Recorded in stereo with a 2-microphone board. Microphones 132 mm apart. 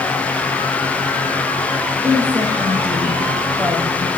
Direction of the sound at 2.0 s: 15° right (ahead or behind).